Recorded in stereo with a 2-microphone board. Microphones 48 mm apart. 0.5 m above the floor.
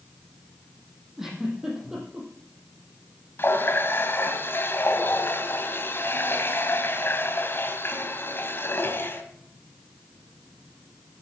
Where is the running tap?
50° left (ahead or behind), 2.5 m.